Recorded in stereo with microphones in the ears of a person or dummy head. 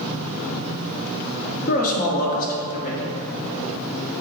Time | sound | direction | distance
1.7 | a man speaking | 45° left (ahead or behind) | 1.1 m